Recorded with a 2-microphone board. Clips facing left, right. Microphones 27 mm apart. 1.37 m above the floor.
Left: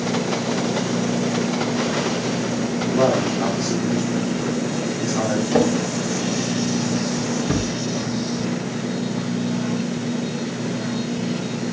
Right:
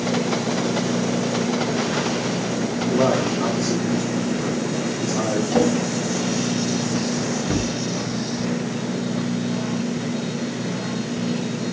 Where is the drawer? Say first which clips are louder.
Even; 65° left (ahead or behind), 4.5 m.